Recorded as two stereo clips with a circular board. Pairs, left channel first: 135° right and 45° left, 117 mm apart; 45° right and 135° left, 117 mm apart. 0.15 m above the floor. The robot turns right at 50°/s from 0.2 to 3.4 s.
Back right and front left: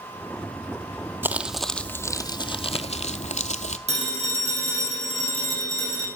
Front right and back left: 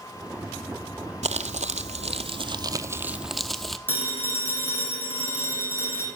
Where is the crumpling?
120° left, 0.7 m; by 3.8 s 135° right, 0.7 m.